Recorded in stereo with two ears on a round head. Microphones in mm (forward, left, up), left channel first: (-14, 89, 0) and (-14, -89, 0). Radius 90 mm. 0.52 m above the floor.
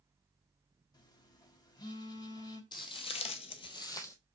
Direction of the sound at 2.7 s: 25° left (ahead or behind).